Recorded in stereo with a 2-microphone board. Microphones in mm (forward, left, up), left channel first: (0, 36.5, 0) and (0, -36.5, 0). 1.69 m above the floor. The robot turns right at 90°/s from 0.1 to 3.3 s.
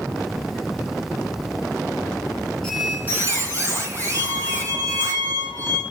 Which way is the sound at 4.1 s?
55° right (ahead or behind).